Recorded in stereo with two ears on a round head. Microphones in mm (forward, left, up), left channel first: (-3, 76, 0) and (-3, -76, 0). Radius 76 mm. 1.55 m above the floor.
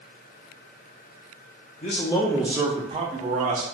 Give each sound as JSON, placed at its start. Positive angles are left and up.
{"t": 1.8, "sound": "a man speaking", "side_deg": 40, "distance_m": 0.6}